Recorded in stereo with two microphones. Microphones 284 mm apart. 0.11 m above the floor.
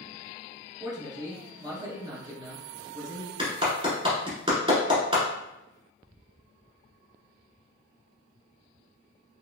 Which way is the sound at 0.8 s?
15° right (ahead or behind).